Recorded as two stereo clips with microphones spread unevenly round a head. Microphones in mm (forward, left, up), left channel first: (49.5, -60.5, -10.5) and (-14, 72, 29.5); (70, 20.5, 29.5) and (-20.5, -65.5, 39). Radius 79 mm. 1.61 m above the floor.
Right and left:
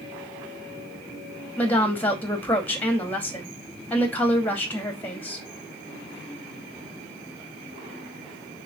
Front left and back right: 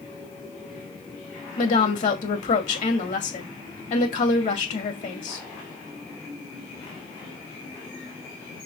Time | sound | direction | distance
1.6 | a woman speaking | 20° left | 2.5 m